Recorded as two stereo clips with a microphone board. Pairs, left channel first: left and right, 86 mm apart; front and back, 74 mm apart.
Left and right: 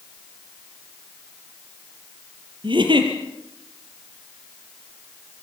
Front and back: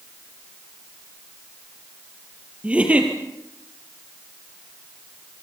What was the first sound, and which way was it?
A giggle, 110° right.